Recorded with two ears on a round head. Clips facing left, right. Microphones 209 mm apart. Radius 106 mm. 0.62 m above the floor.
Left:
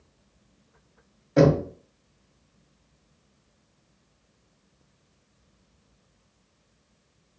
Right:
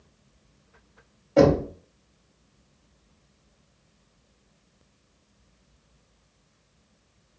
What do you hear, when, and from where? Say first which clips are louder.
1.4 s knocking: right 1 dB; 15° left (ahead or behind), 2.0 m